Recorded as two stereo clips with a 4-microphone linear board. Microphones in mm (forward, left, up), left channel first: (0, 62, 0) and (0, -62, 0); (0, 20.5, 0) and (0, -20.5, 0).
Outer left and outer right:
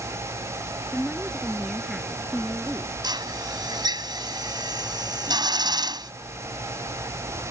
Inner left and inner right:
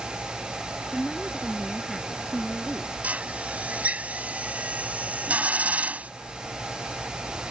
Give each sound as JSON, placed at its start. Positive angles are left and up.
{"t": 0.9, "sound": "a woman speaking", "side_deg": 0}
{"t": 3.0, "sound": "a drill", "side_deg": -35}